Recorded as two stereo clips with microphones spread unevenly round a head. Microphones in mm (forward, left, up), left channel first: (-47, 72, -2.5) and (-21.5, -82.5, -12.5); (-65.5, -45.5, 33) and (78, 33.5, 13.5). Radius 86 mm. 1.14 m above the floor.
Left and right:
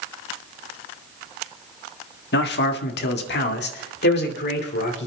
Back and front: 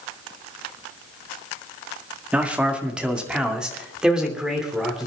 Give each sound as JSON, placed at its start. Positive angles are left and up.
{"t": 2.3, "sound": "a man speaking", "azimuth_deg": 115, "distance_m": 1.6}